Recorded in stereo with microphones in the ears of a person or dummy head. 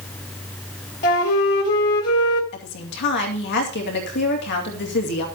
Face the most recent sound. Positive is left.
turn(degrees=60)  # may be behind; listen again after turning